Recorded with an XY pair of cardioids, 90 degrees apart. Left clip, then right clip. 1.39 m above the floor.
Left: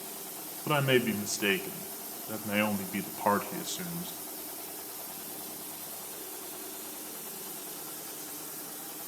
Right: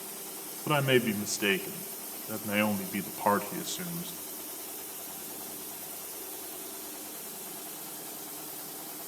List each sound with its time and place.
0.7 s a man speaking: 5° right, 1.5 m